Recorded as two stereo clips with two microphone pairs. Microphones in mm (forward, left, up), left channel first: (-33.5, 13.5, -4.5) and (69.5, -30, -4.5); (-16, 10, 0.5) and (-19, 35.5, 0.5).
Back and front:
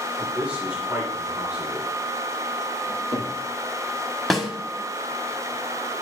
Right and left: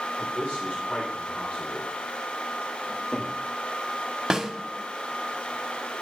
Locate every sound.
0.2 s a man speaking: 100° right, 3 m
2.9 s a cupboard door: 40° right, 4.5 m
4.3 s a snare drum: 70° left, 1.2 m